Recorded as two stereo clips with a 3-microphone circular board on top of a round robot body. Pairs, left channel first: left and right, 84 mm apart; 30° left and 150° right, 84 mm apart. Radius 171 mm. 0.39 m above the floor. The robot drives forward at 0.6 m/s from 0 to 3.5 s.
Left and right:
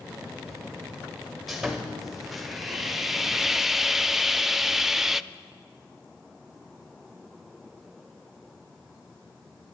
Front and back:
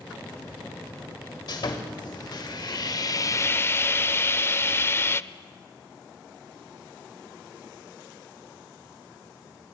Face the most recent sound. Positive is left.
turn(degrees=-5)